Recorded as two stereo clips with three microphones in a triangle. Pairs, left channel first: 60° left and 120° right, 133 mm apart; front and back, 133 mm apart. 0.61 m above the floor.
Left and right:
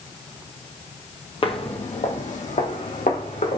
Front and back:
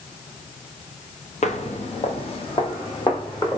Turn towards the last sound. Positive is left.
turn(degrees=55)